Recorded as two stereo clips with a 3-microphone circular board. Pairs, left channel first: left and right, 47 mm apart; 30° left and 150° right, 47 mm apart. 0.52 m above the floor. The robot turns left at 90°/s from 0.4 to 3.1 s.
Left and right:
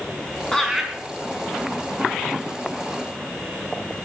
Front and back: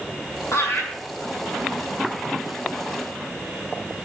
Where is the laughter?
20° left, 5.5 m; by 0.9 s 15° right, 5.5 m.